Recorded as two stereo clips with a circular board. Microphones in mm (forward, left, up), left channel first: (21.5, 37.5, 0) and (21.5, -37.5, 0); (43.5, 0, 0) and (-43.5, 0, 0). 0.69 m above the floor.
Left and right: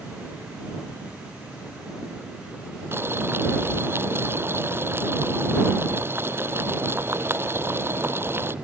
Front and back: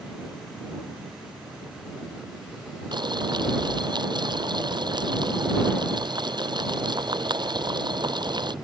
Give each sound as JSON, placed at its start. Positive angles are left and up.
{"t": 2.9, "sound": "boiling", "azimuth_deg": -150}